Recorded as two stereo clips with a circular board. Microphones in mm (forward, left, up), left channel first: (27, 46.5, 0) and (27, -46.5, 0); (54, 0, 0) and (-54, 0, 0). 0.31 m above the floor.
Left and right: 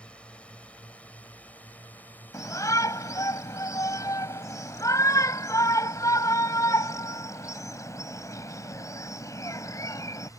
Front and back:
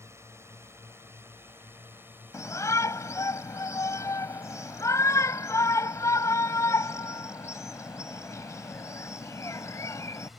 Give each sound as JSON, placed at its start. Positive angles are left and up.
{"t": 0.0, "sound": "a drone", "azimuth_deg": 155}
{"t": 2.3, "sound": "a shout", "azimuth_deg": 50}